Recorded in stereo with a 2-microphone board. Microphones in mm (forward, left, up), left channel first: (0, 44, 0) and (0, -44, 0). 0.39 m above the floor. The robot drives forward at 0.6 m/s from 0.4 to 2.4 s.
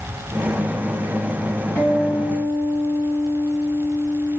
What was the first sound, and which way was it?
A guitar, 20° left (ahead or behind).